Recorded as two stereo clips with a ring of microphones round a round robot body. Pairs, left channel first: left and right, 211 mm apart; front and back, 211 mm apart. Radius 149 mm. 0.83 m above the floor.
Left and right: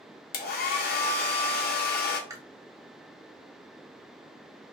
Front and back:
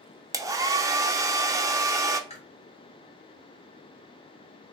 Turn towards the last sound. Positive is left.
turn(degrees=-30)